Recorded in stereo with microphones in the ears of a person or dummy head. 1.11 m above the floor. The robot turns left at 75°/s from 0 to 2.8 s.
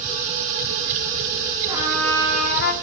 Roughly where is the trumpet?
Behind.